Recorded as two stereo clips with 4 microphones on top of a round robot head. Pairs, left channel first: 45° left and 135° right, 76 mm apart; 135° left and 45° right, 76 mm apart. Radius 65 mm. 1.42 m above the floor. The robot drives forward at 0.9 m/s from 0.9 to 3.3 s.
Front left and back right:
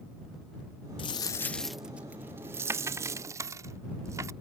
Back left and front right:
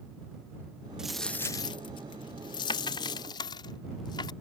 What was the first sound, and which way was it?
A dropped coin, 35° left.